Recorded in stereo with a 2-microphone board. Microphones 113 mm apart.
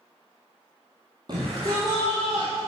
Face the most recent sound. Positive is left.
turn(degrees=-45)  # may be behind; listen again after turning